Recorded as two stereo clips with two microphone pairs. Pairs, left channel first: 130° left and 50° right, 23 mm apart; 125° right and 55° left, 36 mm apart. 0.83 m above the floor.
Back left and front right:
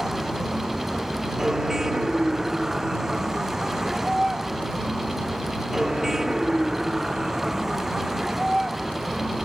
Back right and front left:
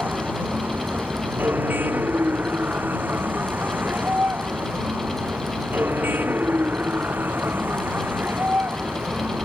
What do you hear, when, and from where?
0.0 s a vehicle: 20° left; by 9.4 s 25° left